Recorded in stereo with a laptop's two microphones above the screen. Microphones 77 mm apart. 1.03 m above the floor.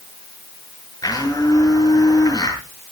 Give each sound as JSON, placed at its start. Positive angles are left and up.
{"t": 1.0, "sound": "a blender", "side_deg": 55, "distance_m": 7.0}